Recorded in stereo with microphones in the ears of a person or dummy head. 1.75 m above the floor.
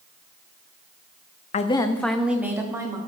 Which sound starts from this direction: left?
A woman speaking, at 1.5 s.